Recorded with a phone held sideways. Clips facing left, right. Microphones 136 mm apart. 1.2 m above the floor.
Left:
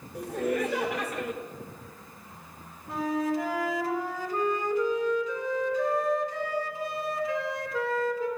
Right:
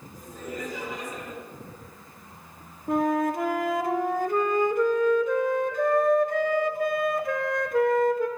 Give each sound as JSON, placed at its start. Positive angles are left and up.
{"t": 0.1, "sound": "laughter", "side_deg": 70, "distance_m": 1.2}
{"t": 2.9, "sound": "a flute", "side_deg": -55, "distance_m": 0.9}